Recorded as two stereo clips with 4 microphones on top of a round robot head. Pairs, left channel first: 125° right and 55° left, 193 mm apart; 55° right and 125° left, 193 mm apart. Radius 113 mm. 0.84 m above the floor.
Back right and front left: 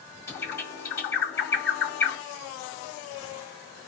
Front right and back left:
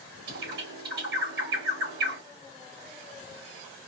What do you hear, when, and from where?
0.3 s a bird: 160° left, 2.0 m